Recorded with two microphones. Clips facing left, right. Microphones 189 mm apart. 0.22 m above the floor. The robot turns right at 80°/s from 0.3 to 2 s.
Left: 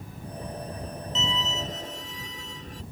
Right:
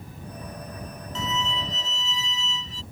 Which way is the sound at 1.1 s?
25° left.